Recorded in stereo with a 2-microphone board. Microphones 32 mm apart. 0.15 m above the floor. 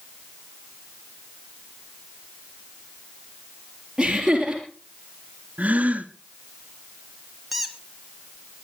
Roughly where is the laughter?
Centre.